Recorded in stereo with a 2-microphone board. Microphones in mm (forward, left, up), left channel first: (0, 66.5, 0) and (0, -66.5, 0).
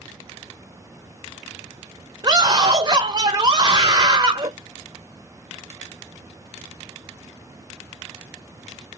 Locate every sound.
2.2 s a scream: 30° right (ahead or behind), 2 m